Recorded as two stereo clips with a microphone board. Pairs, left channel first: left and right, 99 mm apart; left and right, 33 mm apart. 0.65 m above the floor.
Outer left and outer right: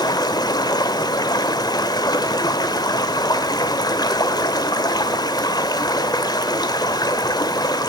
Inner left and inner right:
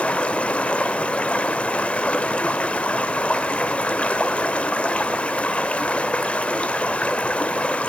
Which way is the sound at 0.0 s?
40° left (ahead or behind).